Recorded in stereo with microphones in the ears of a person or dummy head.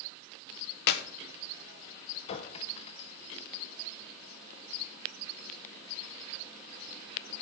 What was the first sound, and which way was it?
A clap, 60° left (ahead or behind).